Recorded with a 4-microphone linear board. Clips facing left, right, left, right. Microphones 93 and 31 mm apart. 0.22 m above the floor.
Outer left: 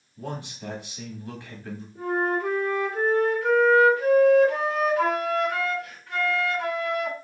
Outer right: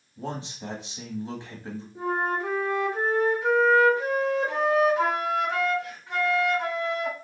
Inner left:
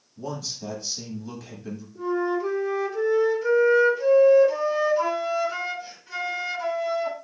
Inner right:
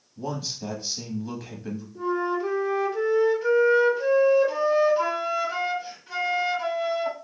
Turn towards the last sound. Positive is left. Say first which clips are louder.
# outer left 2 dB, inner left 1 dB
turn(degrees=-20)  # may be behind; listen again after turning